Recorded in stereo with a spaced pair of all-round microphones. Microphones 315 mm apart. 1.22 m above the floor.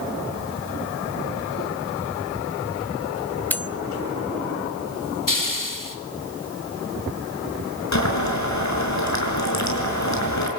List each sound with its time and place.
3.5 s cutlery clinking: 5° left (ahead or behind), 0.8 m
5.3 s a hiss: 85° left, 2 m
7.9 s boiling: 60° left (ahead or behind), 5.5 m